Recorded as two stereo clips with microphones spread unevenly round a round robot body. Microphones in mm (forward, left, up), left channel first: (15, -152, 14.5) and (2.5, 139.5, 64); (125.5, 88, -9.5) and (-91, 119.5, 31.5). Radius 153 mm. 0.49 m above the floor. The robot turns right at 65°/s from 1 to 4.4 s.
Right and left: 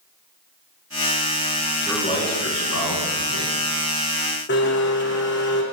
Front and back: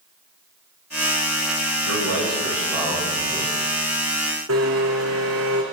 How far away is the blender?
About 4.5 m.